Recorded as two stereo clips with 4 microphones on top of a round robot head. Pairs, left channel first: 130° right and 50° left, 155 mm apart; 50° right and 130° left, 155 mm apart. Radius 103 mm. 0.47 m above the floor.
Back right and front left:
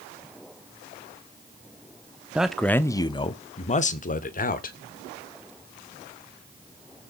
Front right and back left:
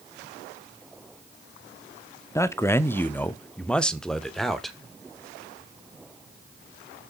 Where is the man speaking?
20° right, 0.8 m; by 4.8 s 135° right, 1.6 m.